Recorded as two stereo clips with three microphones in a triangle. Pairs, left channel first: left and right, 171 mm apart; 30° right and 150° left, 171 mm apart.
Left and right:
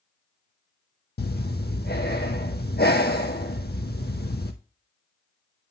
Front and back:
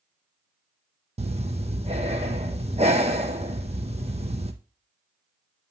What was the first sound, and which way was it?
Breathing, 100° left.